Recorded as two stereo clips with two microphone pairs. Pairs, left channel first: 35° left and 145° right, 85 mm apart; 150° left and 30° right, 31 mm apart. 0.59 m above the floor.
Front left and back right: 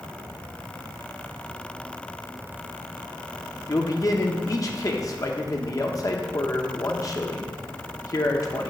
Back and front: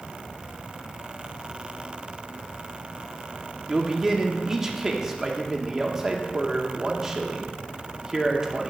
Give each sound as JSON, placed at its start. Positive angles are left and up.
{"t": 3.7, "sound": "a man speaking", "azimuth_deg": 40, "distance_m": 0.8}